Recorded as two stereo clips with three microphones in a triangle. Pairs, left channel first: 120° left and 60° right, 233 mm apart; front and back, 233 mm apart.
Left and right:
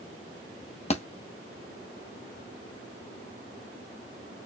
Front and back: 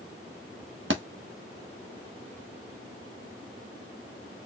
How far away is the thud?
About 1.0 m.